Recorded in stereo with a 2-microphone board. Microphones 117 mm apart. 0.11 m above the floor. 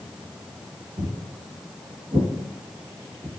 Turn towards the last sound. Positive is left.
turn(degrees=-20)  # may be behind; listen again after turning